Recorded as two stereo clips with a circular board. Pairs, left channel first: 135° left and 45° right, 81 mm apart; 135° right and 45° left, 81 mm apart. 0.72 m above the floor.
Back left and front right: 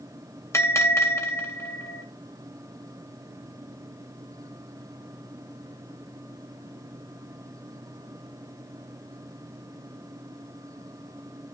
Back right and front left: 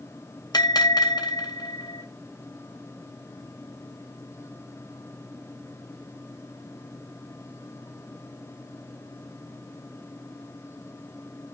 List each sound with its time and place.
0.5 s a bell: 170° right, 2.5 m